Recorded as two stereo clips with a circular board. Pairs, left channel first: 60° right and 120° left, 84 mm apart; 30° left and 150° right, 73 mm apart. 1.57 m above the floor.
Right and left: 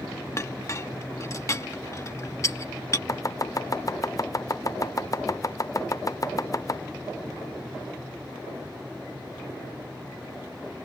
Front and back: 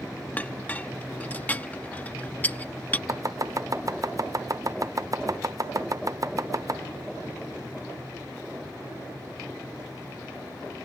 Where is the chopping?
110° right.